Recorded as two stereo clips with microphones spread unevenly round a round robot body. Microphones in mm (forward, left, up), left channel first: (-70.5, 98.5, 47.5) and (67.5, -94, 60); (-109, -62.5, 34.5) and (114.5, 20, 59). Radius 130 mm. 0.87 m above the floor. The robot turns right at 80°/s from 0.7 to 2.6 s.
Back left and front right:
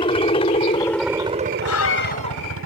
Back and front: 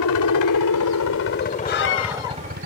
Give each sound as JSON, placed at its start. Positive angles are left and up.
{"t": 0.0, "sound": "a helicopter", "azimuth_deg": -165}
{"t": 1.6, "sound": "a scream", "azimuth_deg": 140}